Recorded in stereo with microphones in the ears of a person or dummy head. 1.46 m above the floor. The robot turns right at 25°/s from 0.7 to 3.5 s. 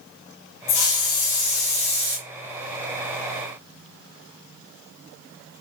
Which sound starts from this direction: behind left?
A hiss, at 0.7 s.